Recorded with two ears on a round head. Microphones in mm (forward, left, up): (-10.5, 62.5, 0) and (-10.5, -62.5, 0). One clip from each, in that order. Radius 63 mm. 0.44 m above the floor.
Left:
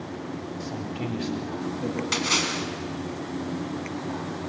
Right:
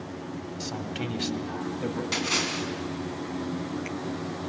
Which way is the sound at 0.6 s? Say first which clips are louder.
Right 2 dB; 60° right (ahead or behind).